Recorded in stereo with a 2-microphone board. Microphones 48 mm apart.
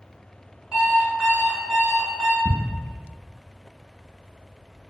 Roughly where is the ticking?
Centre.